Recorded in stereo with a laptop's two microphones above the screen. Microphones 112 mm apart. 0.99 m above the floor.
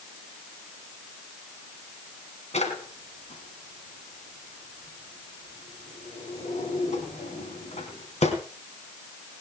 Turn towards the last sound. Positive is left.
turn(degrees=80)